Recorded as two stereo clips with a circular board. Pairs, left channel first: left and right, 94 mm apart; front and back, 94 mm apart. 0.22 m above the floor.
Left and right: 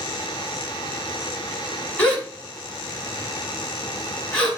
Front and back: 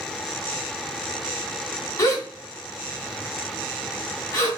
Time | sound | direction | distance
2.0 | a gasp | 20° left | 1.7 m